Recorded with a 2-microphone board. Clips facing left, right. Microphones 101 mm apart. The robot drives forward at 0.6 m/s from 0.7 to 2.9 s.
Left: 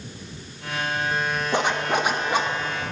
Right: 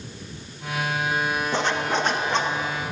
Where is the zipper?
15° left (ahead or behind), 1.0 m; by 2.5 s 10° left (ahead or behind), 1.5 m.